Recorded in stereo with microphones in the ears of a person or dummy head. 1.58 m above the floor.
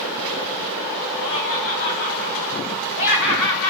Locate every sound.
1.2 s laughter: 70° left (ahead or behind), 4 m; by 3.7 s 75° left (ahead or behind), 5.5 m